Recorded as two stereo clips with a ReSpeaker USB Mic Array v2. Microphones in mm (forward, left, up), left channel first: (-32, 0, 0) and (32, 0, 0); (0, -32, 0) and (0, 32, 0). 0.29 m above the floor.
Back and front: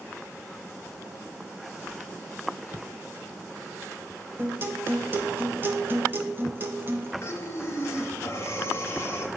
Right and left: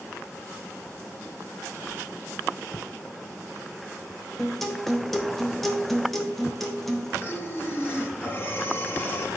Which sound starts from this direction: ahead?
A guitar, at 4.4 s.